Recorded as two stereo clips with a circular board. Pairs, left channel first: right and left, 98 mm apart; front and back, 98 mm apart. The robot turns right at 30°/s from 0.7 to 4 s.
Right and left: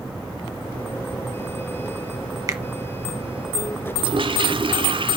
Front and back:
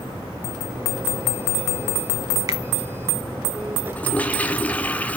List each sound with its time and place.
2.5 s a finger snap: 135° left, 1.2 m; by 2.6 s 140° left, 1.2 m
4.0 s a toilet flushing: 70° left, 0.9 m; by 5.2 s 75° left, 0.9 m